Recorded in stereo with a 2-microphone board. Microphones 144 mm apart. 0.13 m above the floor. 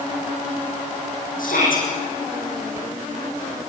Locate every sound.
1.4 s a shout: 75° left (ahead or behind), 9 m